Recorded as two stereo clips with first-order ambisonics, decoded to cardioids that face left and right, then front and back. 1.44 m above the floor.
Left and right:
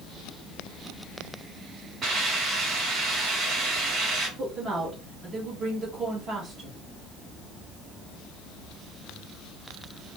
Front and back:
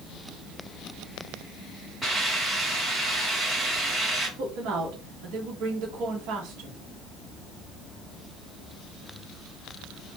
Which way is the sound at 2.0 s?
110° right.